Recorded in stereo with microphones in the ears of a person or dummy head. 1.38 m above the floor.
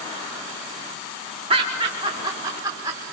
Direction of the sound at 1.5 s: 25° right (ahead or behind).